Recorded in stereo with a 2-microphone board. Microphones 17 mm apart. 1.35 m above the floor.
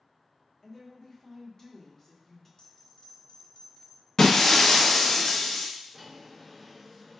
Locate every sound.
0.6 s a woman speaking: 20° left (ahead or behind), 1.4 m
2.6 s a bell: 65° left (ahead or behind), 1.1 m
4.2 s breaking glass: 45° left (ahead or behind), 0.7 m
5.9 s a drawer: 5° right (ahead or behind), 1.8 m